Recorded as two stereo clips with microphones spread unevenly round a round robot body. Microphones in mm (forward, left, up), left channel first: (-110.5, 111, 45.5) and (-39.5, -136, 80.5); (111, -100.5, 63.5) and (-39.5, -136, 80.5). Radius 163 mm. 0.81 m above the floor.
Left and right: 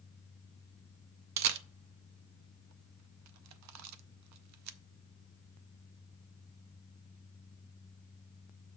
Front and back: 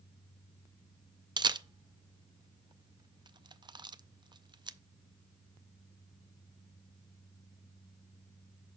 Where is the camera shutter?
100° right, 0.6 m.